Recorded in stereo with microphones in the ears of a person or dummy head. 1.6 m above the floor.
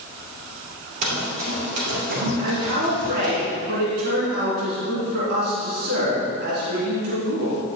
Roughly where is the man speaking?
Right.